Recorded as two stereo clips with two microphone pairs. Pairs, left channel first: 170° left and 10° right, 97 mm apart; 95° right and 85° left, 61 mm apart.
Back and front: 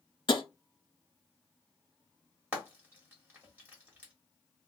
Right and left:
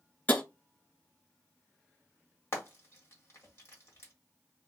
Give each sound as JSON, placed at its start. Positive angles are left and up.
{"t": 0.3, "sound": "tapping", "azimuth_deg": -160, "distance_m": 1.0}
{"t": 2.5, "sound": "frying", "azimuth_deg": -75, "distance_m": 1.9}